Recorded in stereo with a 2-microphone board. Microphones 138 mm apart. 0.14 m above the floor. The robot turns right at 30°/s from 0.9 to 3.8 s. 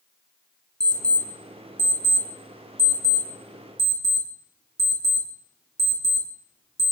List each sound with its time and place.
0.8 s an alarm clock: 5° left (ahead or behind), 0.7 m; by 6.9 s 25° left (ahead or behind), 0.7 m